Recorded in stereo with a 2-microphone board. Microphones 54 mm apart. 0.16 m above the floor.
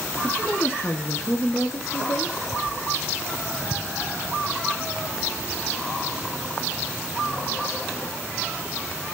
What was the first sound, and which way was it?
A woman speaking, 30° left (ahead or behind).